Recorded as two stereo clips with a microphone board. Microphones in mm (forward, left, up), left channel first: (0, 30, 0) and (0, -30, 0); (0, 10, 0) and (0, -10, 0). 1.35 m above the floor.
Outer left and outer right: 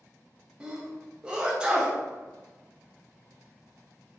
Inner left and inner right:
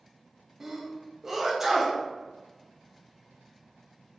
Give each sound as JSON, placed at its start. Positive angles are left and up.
{"t": 0.6, "sound": "a sneeze", "side_deg": -15, "distance_m": 0.6}